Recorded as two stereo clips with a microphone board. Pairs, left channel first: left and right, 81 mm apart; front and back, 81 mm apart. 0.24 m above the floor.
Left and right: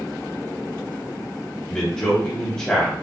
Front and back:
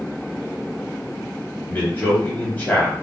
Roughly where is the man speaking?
Ahead left.